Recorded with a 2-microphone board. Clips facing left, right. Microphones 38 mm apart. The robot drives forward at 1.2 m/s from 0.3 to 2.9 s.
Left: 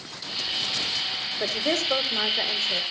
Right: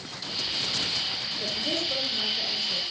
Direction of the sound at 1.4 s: 75° left (ahead or behind).